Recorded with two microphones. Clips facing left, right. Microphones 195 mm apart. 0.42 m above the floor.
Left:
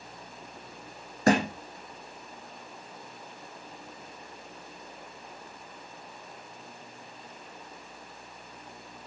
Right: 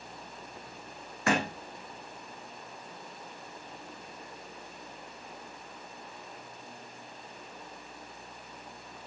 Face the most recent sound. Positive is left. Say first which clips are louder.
# left 6 dB
turn(degrees=40)  # may be behind; listen again after turning